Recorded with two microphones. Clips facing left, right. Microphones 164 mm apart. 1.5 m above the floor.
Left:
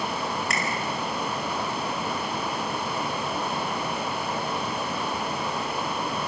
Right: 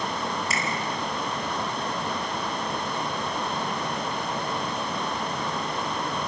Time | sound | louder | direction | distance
0.5 | a finger snap | even | 65° left (ahead or behind) | 5 m